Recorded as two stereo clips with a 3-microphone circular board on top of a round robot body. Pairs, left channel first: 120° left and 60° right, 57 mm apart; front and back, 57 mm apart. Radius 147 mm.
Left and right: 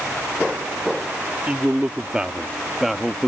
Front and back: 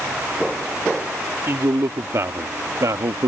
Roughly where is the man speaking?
Behind right.